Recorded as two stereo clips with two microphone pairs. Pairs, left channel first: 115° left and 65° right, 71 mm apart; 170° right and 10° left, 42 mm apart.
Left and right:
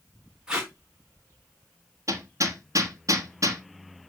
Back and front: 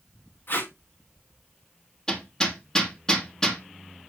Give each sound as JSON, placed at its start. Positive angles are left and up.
{"t": 0.5, "sound": "tape being pulled", "azimuth_deg": -145, "distance_m": 4.0}
{"t": 2.1, "sound": "hammering", "azimuth_deg": -100, "distance_m": 3.5}